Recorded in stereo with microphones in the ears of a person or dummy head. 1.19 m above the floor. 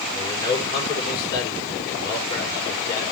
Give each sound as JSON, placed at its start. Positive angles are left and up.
{"t": 0.1, "sound": "a man speaking", "side_deg": 25, "distance_m": 4.0}